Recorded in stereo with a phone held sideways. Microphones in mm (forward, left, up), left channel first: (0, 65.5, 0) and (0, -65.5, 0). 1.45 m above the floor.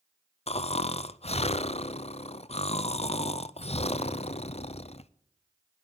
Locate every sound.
0.5 s snoring: 50° left (ahead or behind), 0.5 m